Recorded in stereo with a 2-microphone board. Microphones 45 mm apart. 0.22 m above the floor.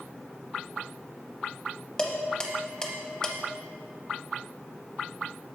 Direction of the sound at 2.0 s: 20° left (ahead or behind).